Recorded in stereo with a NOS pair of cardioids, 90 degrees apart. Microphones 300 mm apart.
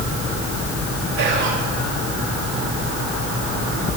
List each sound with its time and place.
1.2 s whispering: 70° right, 6 m